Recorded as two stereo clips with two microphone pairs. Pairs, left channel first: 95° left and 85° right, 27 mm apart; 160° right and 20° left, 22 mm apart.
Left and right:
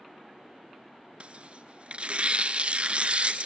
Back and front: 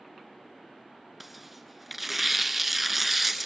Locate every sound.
1.2 s tearing paper: 60° right, 0.7 m